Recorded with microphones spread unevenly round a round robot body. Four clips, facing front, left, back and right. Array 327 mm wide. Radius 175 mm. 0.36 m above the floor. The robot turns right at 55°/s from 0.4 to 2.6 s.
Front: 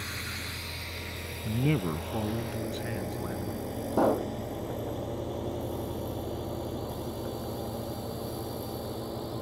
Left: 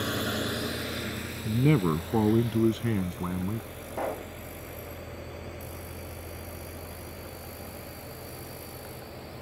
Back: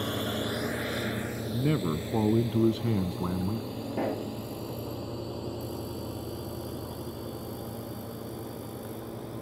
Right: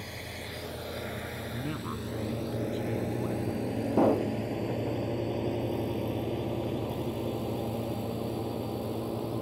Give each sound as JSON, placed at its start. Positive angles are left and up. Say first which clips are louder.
{"t": 0.0, "sound": "a drone", "louder": "left 11 dB, back 9 dB", "azimuth_deg": 130}
{"t": 1.4, "sound": "a man speaking", "louder": "left 14 dB, even", "azimuth_deg": 75}
{"t": 3.9, "sound": "a pop", "louder": "right 8 dB, front 6 dB", "azimuth_deg": -75}